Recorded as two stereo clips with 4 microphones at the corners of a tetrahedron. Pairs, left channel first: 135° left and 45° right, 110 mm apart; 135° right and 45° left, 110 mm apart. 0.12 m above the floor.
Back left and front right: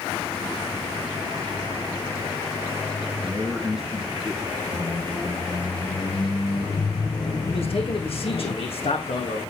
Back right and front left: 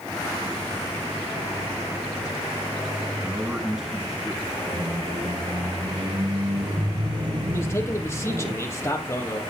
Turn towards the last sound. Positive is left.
turn(degrees=160)